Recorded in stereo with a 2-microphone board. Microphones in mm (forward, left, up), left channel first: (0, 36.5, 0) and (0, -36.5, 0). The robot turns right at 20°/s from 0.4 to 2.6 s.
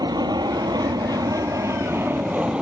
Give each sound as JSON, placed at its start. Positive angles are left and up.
{"t": 0.0, "sound": "an aircraft", "side_deg": -65}